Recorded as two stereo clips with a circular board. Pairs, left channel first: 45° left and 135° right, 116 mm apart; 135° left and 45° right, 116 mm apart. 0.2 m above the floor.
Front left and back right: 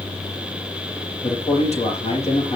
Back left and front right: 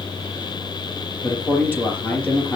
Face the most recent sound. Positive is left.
turn(degrees=60)